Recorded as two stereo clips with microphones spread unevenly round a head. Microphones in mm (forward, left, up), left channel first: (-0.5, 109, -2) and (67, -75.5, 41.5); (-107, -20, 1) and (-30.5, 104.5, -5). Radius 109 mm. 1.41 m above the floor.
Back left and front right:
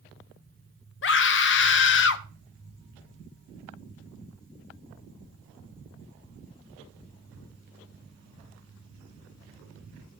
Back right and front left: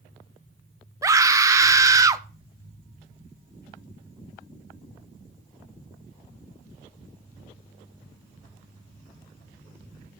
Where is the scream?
125° left, 1.0 m.